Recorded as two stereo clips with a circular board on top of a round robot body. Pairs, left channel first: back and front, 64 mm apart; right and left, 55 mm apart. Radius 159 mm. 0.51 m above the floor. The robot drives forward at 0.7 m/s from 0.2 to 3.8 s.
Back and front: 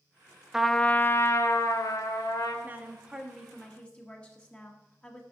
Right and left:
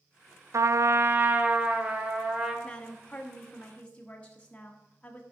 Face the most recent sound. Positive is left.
turn(degrees=-130)